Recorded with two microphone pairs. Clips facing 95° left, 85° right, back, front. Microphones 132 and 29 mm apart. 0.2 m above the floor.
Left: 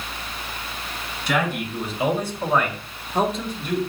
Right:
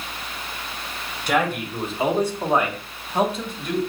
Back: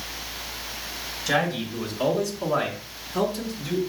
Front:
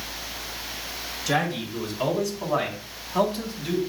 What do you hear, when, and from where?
1.3 s a man speaking: 95° right, 2.5 m; by 3.8 s 10° left, 2 m